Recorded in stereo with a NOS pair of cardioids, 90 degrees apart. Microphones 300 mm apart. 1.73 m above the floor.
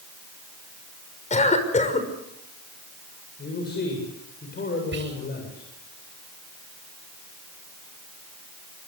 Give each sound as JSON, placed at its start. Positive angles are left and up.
{"t": 1.3, "sound": "a cough", "azimuth_deg": 25, "distance_m": 6.0}
{"t": 3.4, "sound": "a man speaking", "azimuth_deg": 35, "distance_m": 7.5}
{"t": 4.9, "sound": "whispering", "azimuth_deg": -35, "distance_m": 10.0}